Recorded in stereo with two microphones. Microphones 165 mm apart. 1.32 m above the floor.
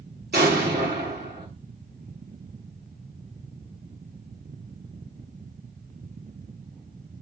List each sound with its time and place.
0.3 s an explosion: 70° right (ahead or behind), 1.3 m